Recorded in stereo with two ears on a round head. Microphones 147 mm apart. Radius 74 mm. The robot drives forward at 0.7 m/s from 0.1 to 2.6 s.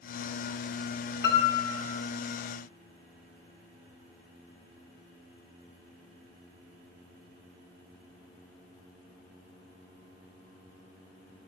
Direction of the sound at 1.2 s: 60° left (ahead or behind).